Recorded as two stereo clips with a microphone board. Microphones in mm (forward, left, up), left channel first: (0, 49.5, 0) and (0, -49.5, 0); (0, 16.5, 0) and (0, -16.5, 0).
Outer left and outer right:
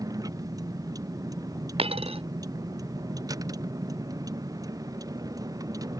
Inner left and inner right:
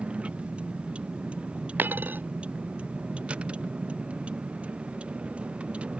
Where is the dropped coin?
75° right (ahead or behind).